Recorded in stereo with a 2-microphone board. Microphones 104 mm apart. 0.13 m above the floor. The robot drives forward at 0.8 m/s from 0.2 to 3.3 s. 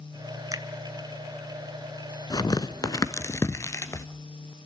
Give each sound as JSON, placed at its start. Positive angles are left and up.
{"t": 0.5, "sound": "a finger snap", "side_deg": -30, "distance_m": 1.2}
{"t": 2.3, "sound": "tearing paper", "side_deg": 40, "distance_m": 0.7}